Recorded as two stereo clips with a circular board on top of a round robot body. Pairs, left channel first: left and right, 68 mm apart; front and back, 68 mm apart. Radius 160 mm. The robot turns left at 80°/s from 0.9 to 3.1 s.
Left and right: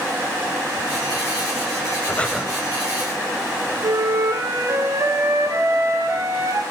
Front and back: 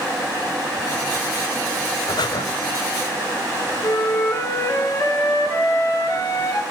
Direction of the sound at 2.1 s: 25° left.